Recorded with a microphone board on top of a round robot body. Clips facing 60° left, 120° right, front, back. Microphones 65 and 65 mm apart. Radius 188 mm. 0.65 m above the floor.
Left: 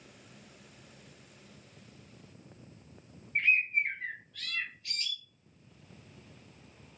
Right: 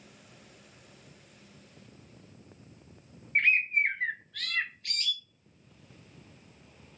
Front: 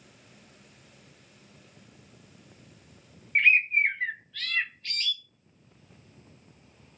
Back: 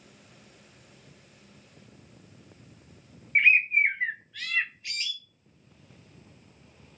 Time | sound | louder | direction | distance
3.4 | a bird | right 3 dB, back 1 dB | 105° right | 0.6 m